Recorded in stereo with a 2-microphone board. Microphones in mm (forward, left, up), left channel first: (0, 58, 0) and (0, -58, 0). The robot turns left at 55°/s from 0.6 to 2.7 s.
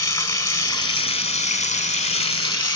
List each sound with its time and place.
0.0 s running water: 155° left, 1.0 m; by 2.8 s 40° left, 1.0 m